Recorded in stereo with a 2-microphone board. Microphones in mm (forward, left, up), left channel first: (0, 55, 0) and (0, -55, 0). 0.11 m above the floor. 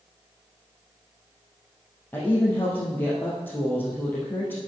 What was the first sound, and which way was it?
A woman speaking, 20° left (ahead or behind).